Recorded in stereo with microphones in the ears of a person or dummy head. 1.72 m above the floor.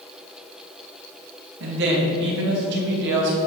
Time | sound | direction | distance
1.6 | a woman speaking | 60° right (ahead or behind) | 3 m